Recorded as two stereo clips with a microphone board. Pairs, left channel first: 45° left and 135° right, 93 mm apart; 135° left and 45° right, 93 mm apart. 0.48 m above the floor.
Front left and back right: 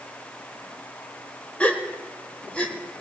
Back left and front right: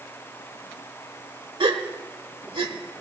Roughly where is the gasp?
Ahead right.